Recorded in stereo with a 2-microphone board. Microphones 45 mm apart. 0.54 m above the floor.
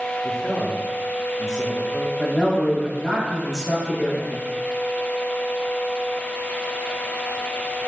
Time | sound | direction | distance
0.2 | a man speaking | 15° right (ahead or behind) | 1.3 m
2.2 | a man speaking | 15° left (ahead or behind) | 3 m